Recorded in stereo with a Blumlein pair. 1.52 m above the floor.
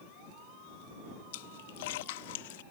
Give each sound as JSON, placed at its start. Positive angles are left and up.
{"t": 1.3, "sound": "a splash", "azimuth_deg": 55}